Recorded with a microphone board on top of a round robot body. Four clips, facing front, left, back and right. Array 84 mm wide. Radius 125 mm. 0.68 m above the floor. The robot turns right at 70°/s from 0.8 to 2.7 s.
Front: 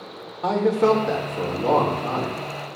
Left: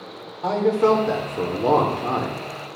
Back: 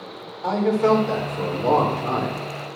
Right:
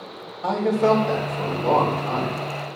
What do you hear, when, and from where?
0.4 s a man speaking: 25° left, 1.8 m; by 2.4 s 135° left, 1.8 m